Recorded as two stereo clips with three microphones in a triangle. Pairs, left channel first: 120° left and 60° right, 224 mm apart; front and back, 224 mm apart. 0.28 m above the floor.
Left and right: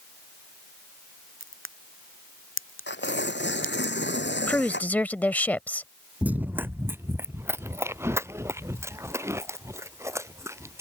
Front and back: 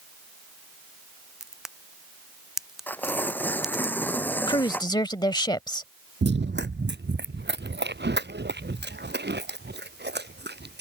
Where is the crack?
90° left.